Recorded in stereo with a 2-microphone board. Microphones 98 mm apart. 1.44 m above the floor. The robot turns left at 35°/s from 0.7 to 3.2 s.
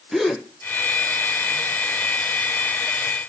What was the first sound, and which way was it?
A gasp, centre (ahead or behind).